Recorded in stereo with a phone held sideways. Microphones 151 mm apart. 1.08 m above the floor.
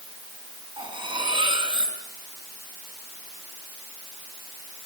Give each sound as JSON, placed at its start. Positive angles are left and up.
{"t": 0.8, "sound": "cutlery clinking", "side_deg": -30, "distance_m": 6.0}